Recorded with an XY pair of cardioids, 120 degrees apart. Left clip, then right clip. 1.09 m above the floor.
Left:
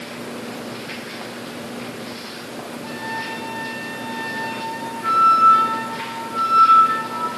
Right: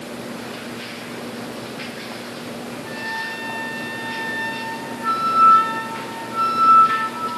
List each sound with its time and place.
2.8 s a flute: 25° left, 7 m